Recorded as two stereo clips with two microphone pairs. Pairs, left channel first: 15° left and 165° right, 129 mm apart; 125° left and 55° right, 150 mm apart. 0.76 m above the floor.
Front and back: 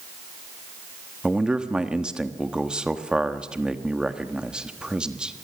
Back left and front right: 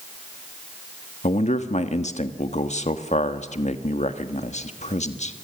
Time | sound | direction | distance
1.2 | a man speaking | 115° left | 1.3 m